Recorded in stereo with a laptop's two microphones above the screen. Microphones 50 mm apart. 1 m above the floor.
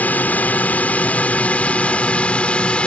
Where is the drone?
35° left (ahead or behind); by 2.9 s 25° left (ahead or behind).